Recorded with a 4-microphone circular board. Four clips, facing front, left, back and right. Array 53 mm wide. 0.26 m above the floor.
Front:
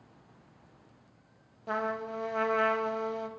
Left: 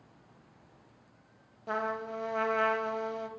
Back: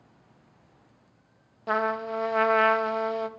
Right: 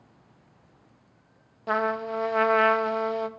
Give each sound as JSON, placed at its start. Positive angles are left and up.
{"t": 1.7, "sound": "a trumpet", "azimuth_deg": -135, "distance_m": 0.6}